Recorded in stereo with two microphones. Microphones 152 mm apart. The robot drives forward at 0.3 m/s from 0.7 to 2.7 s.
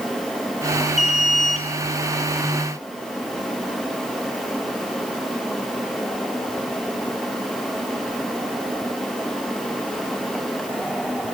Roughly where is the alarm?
Centre.